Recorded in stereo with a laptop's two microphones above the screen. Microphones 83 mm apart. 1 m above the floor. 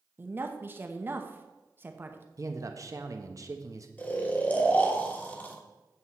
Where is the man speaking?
45° right (ahead or behind), 0.8 m.